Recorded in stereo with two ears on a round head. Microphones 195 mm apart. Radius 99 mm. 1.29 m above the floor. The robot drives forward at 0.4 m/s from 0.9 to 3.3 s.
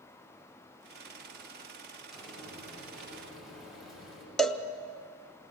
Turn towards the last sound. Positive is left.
turn(degrees=0)  # may be behind; listen again after turning